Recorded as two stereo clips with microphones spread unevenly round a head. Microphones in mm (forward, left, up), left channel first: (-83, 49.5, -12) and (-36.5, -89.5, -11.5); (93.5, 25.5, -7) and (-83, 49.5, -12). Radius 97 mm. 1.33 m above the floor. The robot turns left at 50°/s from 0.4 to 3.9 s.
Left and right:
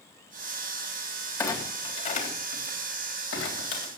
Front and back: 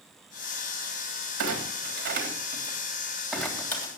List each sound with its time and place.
1.4 s a clunk: 175° right, 3 m; by 3.9 s 60° left, 3 m